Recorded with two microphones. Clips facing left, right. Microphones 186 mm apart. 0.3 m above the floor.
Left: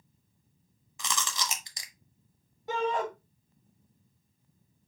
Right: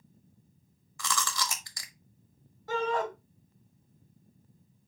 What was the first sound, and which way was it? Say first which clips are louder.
Chewing: right 2 dB; 20° left (ahead or behind).